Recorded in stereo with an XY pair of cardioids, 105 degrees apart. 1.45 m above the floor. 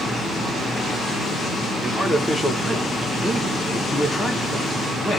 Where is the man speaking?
Straight ahead, 1.2 m.